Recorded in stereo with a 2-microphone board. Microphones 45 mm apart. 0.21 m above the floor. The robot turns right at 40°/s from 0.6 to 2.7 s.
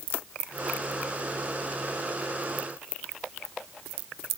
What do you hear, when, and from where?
Only background noise.